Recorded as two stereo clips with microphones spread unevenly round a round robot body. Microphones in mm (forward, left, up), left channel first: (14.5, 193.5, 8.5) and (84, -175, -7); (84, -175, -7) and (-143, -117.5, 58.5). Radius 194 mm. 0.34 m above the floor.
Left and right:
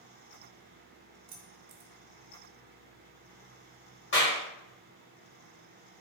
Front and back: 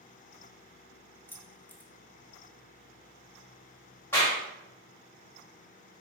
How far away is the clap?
About 1.6 m.